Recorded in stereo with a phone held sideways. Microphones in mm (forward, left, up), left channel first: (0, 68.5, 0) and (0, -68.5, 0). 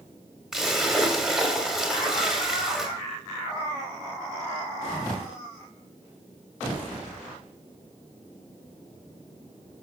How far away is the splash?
About 1.8 m.